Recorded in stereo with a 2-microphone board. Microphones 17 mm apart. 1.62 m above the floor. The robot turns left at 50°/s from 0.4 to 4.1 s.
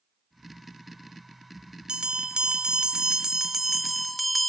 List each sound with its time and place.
1.9 s a bell: 75° right, 0.6 m; by 4.5 s 175° left, 0.6 m